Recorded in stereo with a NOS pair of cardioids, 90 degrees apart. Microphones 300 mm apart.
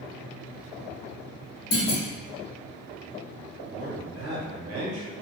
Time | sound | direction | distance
1.7 | a clunk | 50° left | 1.7 m
3.7 | a man speaking | 70° right | 1.7 m